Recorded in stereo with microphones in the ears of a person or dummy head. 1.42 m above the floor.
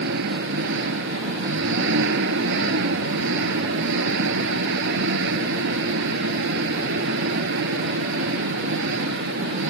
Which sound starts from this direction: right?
An engine running, at 0.0 s.